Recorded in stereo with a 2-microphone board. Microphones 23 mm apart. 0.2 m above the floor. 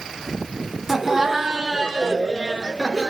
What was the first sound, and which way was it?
Laughter, 10° right (ahead or behind).